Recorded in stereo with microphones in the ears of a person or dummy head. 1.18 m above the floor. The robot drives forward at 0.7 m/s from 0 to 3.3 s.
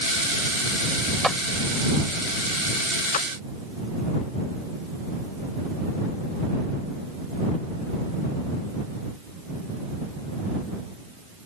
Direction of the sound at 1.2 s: Centre (ahead or behind).